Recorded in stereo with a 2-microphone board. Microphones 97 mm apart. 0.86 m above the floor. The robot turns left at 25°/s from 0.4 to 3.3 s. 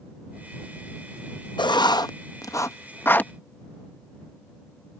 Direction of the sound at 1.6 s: 50° left (ahead or behind).